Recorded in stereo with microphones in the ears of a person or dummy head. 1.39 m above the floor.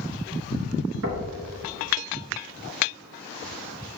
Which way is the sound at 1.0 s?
70° right (ahead or behind).